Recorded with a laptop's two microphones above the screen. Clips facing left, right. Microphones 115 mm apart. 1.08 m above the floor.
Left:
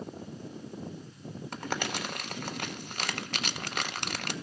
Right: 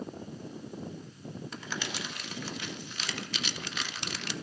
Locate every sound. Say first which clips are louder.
1.5 s crumpling: left 7 dB; 50° left (ahead or behind), 0.5 m